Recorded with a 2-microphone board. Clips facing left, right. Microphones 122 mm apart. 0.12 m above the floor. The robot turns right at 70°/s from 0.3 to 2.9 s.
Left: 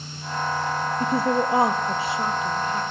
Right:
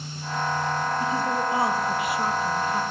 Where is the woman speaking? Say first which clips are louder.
Left 3 dB; 70° left, 3.5 m; by 2.8 s 160° right, 3.5 m.